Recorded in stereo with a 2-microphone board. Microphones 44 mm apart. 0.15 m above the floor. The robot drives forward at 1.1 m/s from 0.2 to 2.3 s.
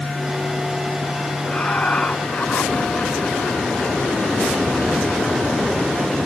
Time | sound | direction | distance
1.4 | laughter | 35° left (ahead or behind) | ?